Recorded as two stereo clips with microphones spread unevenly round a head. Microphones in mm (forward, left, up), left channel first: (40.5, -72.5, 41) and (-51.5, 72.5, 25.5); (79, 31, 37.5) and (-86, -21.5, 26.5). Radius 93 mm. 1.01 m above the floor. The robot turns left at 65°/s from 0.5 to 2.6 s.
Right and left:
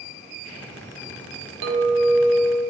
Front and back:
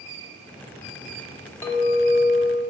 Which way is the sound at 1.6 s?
95° left.